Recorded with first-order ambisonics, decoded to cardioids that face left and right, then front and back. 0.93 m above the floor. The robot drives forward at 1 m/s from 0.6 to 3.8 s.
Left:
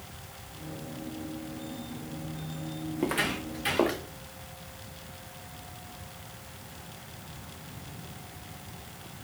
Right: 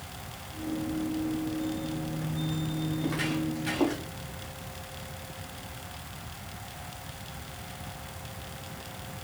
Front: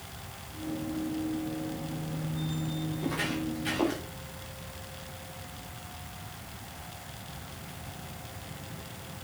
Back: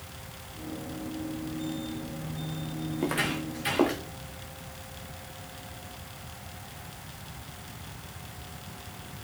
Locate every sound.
3.0 s footsteps: 135° left, 3 m; by 4.0 s 125° left, 4 m